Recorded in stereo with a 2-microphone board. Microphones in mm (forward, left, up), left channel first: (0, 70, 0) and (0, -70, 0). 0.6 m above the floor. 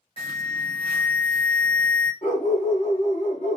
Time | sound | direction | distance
0.2 | an alarm | 40° left (ahead or behind) | 1.2 m
2.2 | a dog barking | 55° left (ahead or behind) | 1.3 m